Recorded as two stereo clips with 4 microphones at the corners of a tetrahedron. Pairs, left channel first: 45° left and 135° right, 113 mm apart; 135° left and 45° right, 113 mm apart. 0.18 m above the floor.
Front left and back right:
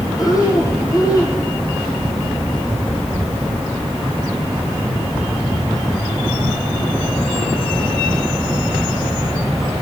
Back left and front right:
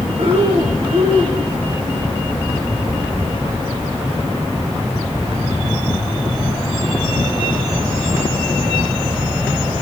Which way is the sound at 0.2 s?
10° right.